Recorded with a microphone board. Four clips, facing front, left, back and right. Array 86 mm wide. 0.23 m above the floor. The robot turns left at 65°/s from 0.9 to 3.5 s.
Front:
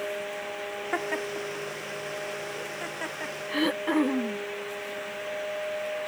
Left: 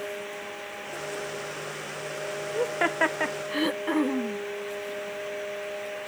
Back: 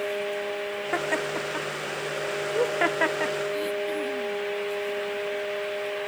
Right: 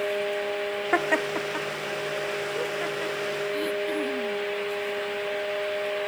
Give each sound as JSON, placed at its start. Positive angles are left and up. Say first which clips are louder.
{"t": 0.9, "sound": "laughter", "louder": "right 10 dB, back 3 dB", "azimuth_deg": -90}
{"t": 3.5, "sound": "throat clearing", "louder": "left 3 dB, front 2 dB", "azimuth_deg": 35}